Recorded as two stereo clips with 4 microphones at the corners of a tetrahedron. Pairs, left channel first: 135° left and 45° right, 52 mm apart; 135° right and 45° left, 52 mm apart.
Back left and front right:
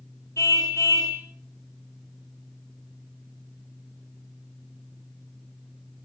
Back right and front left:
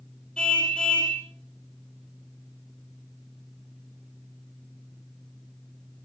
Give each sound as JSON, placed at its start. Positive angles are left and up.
{"t": 0.4, "sound": "a car horn", "azimuth_deg": 150, "distance_m": 4.5}